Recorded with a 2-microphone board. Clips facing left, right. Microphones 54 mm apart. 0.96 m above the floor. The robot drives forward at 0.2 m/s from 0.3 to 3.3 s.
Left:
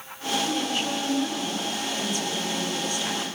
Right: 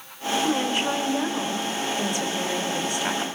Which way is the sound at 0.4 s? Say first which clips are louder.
Right 6 dB; 55° right (ahead or behind).